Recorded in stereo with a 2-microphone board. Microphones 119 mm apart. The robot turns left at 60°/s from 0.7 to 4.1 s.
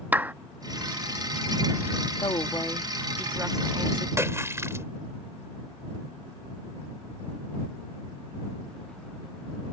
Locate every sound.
0.1 s a clap: 15° right (ahead or behind)
2.2 s a woman speaking: 50° left; by 4.1 s 60° right
4.2 s a splash: 20° right (ahead or behind)